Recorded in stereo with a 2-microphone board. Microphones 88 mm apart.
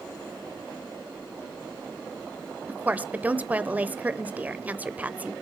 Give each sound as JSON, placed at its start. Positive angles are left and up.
{"t": 2.7, "sound": "a woman speaking", "side_deg": -20, "distance_m": 0.9}